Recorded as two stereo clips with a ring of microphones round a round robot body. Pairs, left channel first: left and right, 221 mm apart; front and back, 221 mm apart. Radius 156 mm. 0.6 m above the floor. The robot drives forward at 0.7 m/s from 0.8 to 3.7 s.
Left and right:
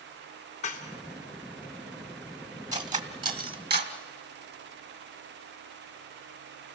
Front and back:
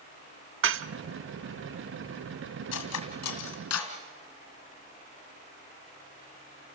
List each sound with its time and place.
0.6 s dishes clattering: 155° left, 0.7 m
2.7 s cutlery clinking: 35° right, 2.5 m; by 4.0 s 45° right, 1.8 m